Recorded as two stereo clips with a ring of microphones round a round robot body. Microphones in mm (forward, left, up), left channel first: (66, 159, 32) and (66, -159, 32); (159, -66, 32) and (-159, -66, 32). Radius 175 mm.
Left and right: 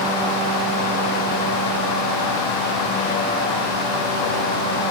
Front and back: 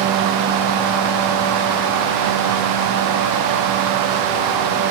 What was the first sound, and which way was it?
Only background noise.